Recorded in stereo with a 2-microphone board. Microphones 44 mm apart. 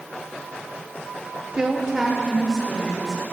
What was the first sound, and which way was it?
A woman speaking, 20° right (ahead or behind).